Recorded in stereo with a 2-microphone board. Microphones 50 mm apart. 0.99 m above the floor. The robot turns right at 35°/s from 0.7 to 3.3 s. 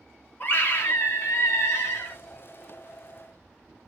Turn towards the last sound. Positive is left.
turn(degrees=140)